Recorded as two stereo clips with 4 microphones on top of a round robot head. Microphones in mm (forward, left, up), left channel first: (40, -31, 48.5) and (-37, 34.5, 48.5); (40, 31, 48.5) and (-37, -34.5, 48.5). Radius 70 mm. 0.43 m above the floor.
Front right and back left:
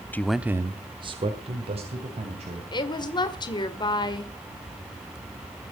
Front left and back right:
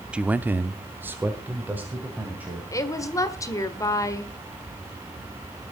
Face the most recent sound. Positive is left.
turn(degrees=-10)